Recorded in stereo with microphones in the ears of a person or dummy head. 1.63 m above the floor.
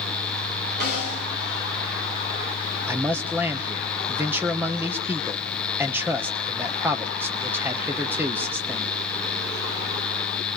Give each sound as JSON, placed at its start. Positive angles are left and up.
{"t": 0.8, "sound": "a snare drum", "side_deg": -50, "distance_m": 7.5}
{"t": 2.9, "sound": "a man speaking", "side_deg": -10, "distance_m": 0.9}